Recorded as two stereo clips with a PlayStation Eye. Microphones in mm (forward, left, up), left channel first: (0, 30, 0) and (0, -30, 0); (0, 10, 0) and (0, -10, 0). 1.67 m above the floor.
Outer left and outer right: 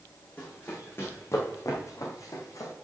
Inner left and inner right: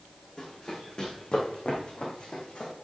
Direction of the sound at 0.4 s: 35° left (ahead or behind).